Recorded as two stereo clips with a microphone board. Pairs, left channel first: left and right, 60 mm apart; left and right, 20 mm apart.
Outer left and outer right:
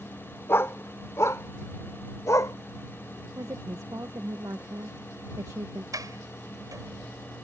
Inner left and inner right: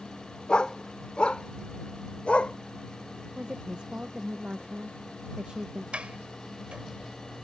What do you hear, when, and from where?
0.5 s a dog barking: 45° left (ahead or behind); by 2.5 s 70° left (ahead or behind)
3.4 s a woman speaking: 75° right (ahead or behind)
5.9 s a sliding door: 75° right (ahead or behind)